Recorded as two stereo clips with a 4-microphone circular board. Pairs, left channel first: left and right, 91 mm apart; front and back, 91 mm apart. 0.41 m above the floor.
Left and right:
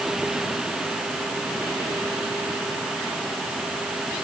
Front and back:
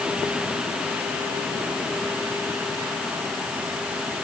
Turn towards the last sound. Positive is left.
No sound to turn to.